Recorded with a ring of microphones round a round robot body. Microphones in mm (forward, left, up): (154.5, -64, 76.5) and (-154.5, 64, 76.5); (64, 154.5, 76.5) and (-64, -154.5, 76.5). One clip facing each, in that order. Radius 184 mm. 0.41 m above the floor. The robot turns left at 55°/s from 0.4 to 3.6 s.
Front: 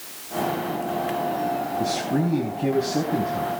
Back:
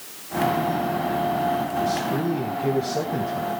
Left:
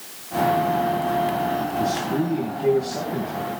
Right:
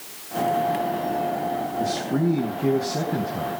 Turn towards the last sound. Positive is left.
turn(degrees=-105)